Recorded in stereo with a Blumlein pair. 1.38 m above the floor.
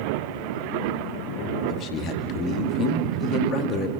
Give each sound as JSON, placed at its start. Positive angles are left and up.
{"t": 1.7, "sound": "a man speaking", "azimuth_deg": 30, "distance_m": 2.5}